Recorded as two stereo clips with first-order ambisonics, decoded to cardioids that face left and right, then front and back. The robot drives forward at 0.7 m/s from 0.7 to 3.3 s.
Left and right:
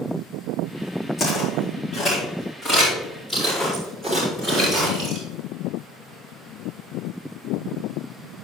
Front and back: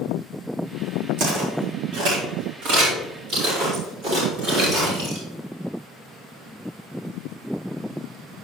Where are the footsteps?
160° left, 4 m; by 5.2 s 160° right, 6 m.